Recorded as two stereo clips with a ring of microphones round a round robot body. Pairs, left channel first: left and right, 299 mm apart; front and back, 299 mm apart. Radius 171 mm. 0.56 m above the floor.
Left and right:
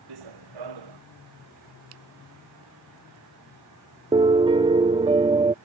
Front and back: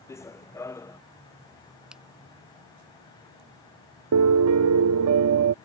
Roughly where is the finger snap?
Right.